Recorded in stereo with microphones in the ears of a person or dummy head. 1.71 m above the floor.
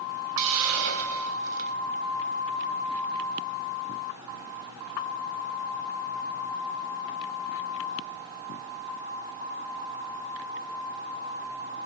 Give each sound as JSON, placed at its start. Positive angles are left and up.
{"t": 0.4, "sound": "a hiss", "side_deg": -70, "distance_m": 1.0}